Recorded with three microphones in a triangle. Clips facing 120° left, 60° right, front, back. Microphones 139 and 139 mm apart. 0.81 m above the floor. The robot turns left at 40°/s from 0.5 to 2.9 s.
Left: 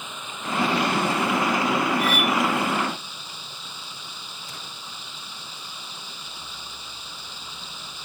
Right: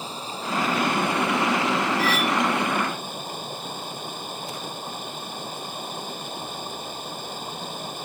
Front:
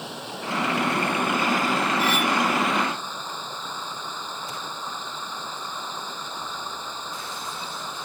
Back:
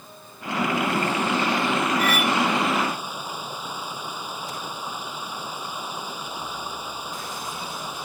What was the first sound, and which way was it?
Running water, 5° right.